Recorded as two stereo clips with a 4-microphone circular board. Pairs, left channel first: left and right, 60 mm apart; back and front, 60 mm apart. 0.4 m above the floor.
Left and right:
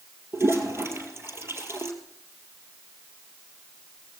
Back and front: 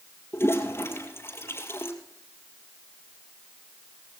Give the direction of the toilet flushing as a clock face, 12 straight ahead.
4 o'clock.